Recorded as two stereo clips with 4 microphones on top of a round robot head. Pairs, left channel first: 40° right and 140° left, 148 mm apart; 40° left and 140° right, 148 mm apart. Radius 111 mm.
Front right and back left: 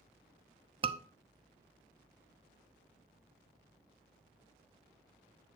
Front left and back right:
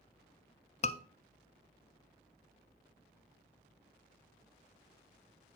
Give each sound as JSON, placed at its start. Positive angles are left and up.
{"t": 0.8, "sound": "a scream", "azimuth_deg": 85, "distance_m": 0.8}